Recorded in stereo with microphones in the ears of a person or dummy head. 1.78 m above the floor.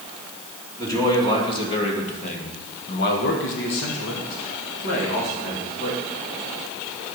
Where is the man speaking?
20° left (ahead or behind), 2.5 m; by 6.0 s 40° left (ahead or behind), 2.5 m.